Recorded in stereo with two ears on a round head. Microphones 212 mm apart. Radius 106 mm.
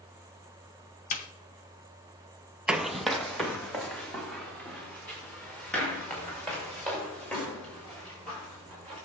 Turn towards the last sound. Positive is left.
turn(degrees=5)  # may be behind; listen again after turning